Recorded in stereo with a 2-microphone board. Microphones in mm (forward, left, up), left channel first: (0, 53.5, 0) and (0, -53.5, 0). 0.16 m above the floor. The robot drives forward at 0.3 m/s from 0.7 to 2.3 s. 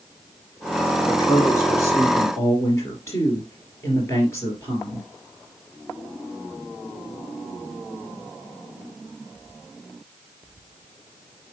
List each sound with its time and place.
1.1 s a woman speaking: 30° left (ahead or behind), 2 m; by 5.1 s 25° left (ahead or behind), 2.5 m